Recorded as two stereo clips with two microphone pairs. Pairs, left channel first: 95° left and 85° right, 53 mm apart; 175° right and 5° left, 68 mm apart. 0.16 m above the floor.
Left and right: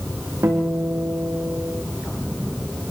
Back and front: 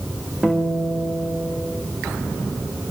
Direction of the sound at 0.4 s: 70° right.